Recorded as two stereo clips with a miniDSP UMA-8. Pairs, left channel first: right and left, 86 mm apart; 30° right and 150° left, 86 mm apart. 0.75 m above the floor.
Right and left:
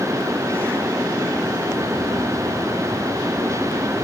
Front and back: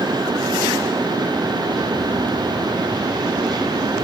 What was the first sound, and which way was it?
Only background noise.